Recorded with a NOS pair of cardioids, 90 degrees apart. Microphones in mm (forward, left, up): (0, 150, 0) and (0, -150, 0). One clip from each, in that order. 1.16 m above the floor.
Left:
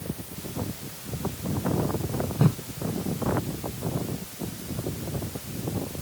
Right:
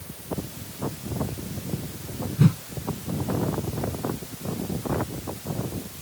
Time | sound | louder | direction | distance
2.4 | a whoosh | right 3 dB | 30° right | ?